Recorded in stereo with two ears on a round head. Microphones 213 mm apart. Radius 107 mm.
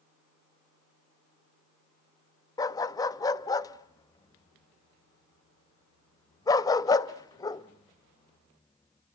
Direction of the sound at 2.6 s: 15° left (ahead or behind).